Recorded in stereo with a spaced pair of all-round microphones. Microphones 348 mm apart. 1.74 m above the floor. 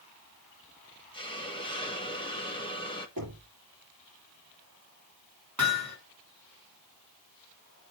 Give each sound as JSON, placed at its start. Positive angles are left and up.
{"t": 1.1, "sound": "a hiss", "side_deg": 15, "distance_m": 1.6}
{"t": 3.2, "sound": "knocking", "side_deg": -70, "distance_m": 2.5}
{"t": 5.6, "sound": "hammering", "side_deg": -50, "distance_m": 5.0}